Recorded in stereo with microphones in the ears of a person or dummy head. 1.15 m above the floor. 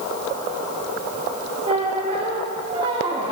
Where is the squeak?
25° right (ahead or behind), 1.0 m.